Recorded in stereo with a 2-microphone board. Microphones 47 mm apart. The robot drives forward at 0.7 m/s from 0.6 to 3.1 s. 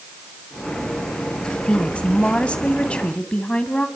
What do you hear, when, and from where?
1.5 s a woman speaking: 25° left (ahead or behind), 1.5 m; by 3.9 s 20° left (ahead or behind), 1.6 m